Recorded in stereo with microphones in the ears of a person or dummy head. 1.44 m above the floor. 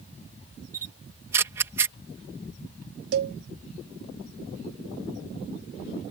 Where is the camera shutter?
15° right (ahead or behind).